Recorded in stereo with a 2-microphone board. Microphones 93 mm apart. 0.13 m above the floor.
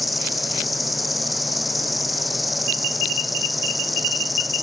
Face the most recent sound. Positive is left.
turn(degrees=0)  # may be behind; listen again after turning